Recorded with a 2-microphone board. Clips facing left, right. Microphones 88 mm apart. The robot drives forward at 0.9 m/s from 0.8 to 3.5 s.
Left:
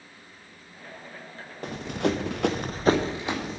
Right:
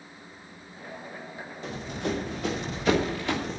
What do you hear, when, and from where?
1.6 s running footsteps: 55° left (ahead or behind), 2 m; by 3.6 s 10° left (ahead or behind), 2.5 m